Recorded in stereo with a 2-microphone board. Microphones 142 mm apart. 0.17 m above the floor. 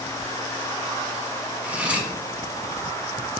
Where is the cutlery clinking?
10° right (ahead or behind), 0.7 m.